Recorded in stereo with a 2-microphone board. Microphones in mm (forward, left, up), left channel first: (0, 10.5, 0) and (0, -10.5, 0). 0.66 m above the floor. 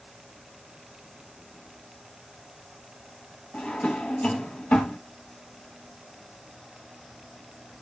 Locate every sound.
3.5 s a drawer: 85° left, 1.2 m